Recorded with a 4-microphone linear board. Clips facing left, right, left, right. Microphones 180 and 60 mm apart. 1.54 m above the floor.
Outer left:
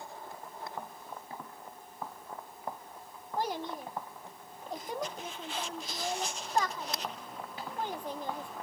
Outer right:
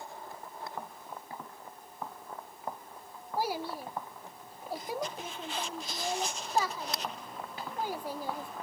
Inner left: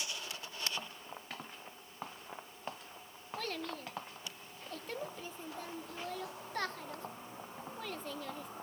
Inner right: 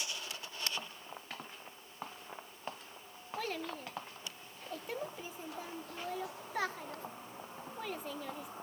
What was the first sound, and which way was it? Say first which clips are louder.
A child speaking: outer right 1 dB, inner right 1 dB; 5° right (ahead or behind).